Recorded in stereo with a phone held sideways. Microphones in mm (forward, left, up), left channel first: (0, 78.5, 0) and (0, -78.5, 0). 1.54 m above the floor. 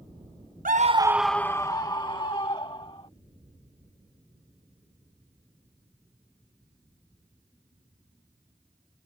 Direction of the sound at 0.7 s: 65° right (ahead or behind).